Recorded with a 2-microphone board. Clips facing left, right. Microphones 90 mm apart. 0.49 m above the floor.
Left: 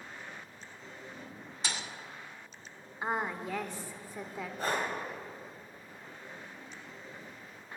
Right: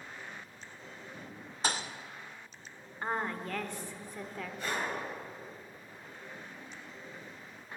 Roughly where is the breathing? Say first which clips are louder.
Left 3 dB; left.